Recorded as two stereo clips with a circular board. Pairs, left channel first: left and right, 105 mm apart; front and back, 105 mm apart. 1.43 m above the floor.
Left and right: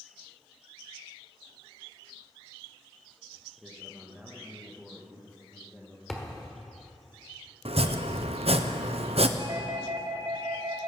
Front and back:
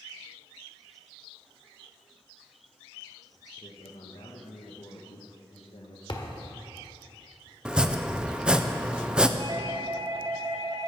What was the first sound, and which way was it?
A man speaking, straight ahead.